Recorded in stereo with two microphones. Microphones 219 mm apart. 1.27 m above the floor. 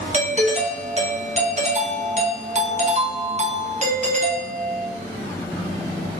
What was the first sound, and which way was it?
A doorbell, 30° right (ahead or behind).